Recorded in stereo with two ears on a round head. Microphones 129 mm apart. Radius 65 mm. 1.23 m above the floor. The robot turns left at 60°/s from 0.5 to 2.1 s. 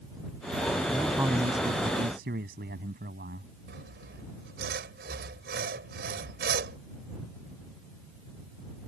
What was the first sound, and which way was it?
A man speaking, straight ahead.